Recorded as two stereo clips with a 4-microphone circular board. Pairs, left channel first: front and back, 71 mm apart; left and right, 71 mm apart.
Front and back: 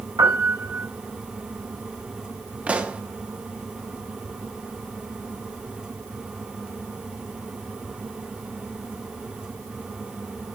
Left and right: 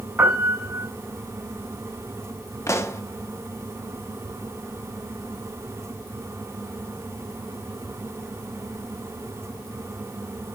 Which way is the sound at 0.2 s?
155° right.